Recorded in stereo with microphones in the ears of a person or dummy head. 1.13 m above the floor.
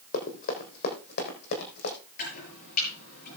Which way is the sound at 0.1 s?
50° left (ahead or behind).